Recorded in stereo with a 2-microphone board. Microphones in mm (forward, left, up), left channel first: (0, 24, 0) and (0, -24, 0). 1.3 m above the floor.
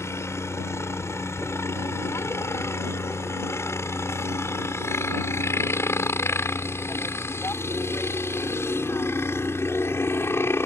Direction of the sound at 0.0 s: 65° left (ahead or behind).